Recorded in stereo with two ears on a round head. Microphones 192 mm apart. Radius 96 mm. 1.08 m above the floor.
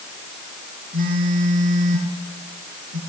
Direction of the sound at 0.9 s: 40° right (ahead or behind).